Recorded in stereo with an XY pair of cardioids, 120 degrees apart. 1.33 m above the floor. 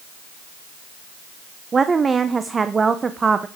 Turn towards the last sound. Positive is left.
turn(degrees=-25)